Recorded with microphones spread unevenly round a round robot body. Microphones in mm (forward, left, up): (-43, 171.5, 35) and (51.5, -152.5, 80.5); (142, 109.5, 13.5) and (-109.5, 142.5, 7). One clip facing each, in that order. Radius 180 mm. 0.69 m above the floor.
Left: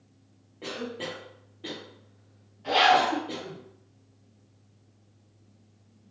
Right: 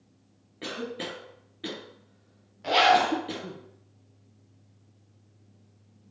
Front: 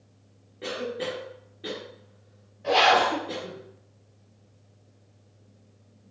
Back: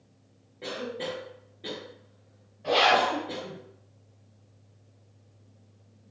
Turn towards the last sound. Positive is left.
turn(degrees=-100)